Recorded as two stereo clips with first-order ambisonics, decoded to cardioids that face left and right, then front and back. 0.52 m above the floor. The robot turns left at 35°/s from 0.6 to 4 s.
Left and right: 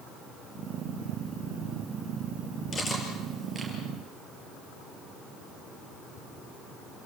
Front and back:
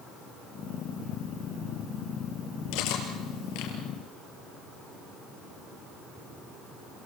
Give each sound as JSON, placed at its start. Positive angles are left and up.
{"t": 2.7, "sound": "cutlery clinking", "azimuth_deg": 20, "distance_m": 5.5}